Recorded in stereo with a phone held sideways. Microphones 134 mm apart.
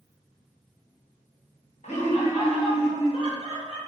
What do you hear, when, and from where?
1.8 s laughter: 60° left (ahead or behind), 1.1 m; by 3.8 s 45° left (ahead or behind), 2 m